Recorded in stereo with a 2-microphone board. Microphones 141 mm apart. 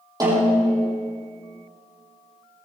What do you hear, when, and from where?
0.2 s a snare drum: 25° right (ahead or behind), 7.5 m